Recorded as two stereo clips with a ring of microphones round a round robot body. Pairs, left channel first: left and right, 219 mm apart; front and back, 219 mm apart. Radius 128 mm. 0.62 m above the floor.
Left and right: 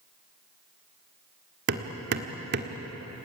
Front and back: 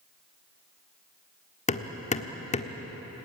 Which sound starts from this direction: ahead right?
Hammering, at 1.7 s.